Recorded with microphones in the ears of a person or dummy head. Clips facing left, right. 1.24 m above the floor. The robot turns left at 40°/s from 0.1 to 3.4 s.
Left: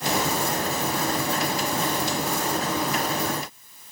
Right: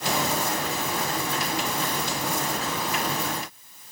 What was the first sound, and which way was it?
Only background noise.